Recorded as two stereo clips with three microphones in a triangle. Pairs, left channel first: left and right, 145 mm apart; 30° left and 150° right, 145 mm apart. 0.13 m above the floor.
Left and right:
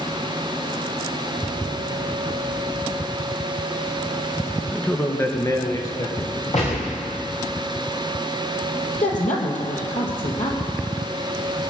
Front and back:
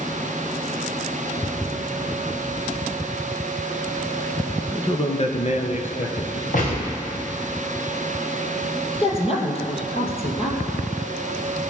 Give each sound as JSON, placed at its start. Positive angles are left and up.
{"t": 4.7, "sound": "a man speaking", "azimuth_deg": 10, "distance_m": 1.2}
{"t": 6.5, "sound": "a gunshot", "azimuth_deg": 50, "distance_m": 4.5}
{"t": 8.9, "sound": "a woman speaking", "azimuth_deg": 70, "distance_m": 3.5}